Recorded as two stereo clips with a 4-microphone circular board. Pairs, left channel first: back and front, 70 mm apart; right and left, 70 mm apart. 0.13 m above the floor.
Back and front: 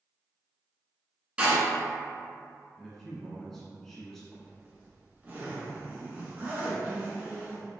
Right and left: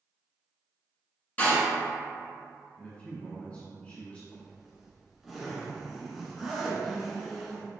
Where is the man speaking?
105° right, 1.1 m.